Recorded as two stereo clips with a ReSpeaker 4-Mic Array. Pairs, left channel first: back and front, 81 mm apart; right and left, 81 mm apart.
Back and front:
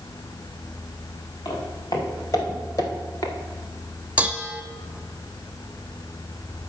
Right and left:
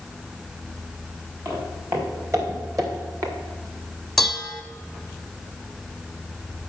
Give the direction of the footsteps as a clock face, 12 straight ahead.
7 o'clock.